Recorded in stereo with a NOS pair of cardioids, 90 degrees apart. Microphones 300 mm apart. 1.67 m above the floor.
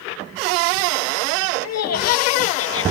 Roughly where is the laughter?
Ahead left.